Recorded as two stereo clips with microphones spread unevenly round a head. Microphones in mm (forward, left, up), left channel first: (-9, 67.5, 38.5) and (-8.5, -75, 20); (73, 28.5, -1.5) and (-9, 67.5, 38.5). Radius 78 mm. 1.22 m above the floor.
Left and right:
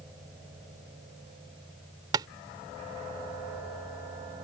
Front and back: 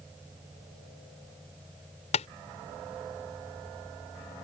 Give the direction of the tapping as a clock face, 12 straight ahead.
1 o'clock.